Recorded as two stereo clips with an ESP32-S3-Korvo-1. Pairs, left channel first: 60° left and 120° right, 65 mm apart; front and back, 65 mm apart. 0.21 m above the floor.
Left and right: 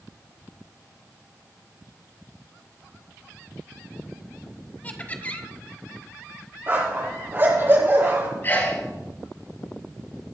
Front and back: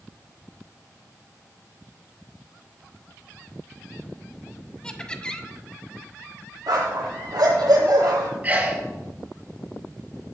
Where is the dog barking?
175° right, 3 m.